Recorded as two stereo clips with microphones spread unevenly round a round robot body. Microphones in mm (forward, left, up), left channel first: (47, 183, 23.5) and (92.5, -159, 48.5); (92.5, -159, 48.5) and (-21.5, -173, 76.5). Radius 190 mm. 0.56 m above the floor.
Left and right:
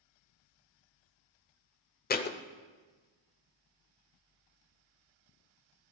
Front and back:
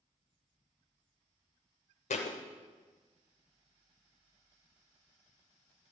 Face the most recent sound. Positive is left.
turn(degrees=30)